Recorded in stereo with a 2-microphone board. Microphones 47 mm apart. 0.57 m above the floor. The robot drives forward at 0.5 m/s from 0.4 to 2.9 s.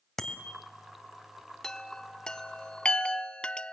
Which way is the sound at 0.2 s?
10° left (ahead or behind).